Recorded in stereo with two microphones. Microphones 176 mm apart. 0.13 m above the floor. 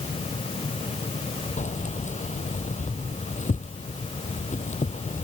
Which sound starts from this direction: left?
Keys jangling, at 1.6 s.